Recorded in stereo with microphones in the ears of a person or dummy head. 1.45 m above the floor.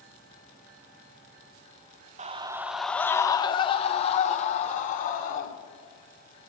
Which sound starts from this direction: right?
A scream, at 2.2 s.